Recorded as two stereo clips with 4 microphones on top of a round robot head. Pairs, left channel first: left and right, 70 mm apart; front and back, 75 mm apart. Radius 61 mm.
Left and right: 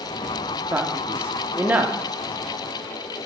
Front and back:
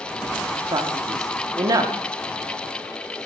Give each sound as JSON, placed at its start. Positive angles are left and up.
{"t": 0.7, "sound": "a man speaking", "azimuth_deg": -155, "distance_m": 0.8}